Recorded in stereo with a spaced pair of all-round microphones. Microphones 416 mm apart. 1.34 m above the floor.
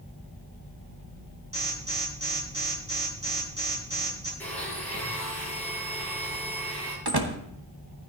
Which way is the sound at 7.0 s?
70° right (ahead or behind).